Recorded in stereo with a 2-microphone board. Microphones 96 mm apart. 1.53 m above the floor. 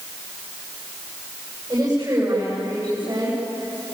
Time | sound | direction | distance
1.7 | a woman speaking | 40° right (ahead or behind) | 8.5 m